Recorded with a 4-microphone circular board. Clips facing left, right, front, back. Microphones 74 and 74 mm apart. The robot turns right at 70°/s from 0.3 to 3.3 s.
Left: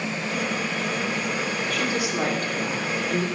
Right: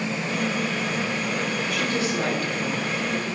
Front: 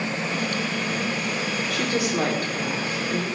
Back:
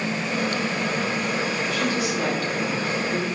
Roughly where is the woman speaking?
Ahead.